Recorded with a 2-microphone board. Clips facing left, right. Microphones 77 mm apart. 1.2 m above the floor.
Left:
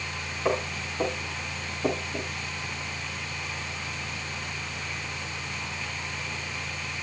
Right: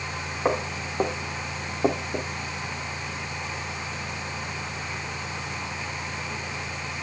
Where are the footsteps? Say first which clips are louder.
Right 2 dB; 35° right (ahead or behind), 5.5 m; by 2.3 s 45° right (ahead or behind), 3.5 m.